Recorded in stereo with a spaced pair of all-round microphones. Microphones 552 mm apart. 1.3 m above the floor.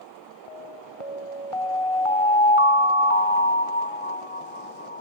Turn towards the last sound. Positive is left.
turn(degrees=65)  # may be behind; listen again after turning